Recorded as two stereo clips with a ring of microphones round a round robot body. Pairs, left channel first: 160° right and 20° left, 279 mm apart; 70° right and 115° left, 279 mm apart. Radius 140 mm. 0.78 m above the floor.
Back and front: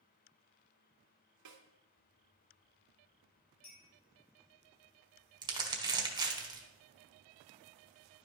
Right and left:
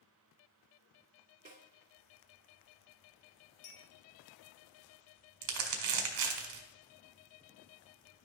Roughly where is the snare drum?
Ahead left.